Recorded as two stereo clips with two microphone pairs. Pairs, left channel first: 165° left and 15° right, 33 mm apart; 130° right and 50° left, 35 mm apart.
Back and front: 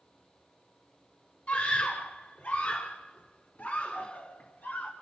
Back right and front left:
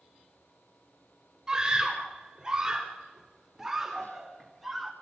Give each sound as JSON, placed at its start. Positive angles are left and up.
{"t": 1.5, "sound": "a scream", "azimuth_deg": 115, "distance_m": 4.0}